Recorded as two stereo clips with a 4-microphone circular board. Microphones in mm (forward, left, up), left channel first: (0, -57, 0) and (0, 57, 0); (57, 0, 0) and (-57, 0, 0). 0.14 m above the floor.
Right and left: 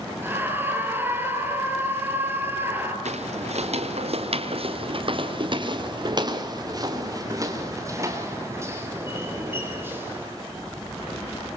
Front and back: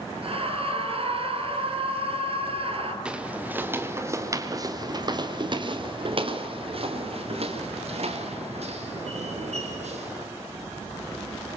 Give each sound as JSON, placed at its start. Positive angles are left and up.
{"t": 0.2, "sound": "a scream", "azimuth_deg": 160, "distance_m": 3.5}
{"t": 3.0, "sound": "footsteps", "azimuth_deg": 100, "distance_m": 2.5}